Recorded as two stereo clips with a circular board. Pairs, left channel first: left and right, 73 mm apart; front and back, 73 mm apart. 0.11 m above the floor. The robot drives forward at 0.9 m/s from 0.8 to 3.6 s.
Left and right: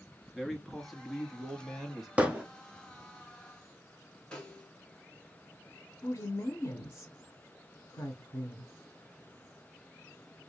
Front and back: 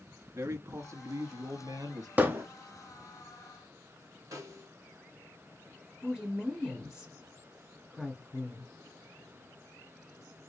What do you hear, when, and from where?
0.3 s a man speaking: straight behind, 1.3 m
2.2 s hammering: 145° right, 1.0 m; by 2.5 s 155° right, 1.1 m
4.3 s a snare drum: 165° left, 1.6 m
6.0 s a woman speaking: 95° left, 1.3 m